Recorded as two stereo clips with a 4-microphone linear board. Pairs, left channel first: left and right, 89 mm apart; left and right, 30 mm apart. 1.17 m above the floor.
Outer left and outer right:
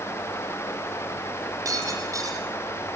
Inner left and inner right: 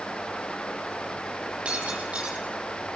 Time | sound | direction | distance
1.6 | breaking glass | 35° right (ahead or behind) | 8.5 m